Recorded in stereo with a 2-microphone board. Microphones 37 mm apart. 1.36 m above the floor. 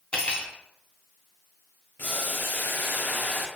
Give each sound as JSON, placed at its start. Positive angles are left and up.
{"t": 0.1, "sound": "cutlery clinking", "side_deg": 30, "distance_m": 0.5}
{"t": 2.0, "sound": "boiling", "side_deg": 55, "distance_m": 0.6}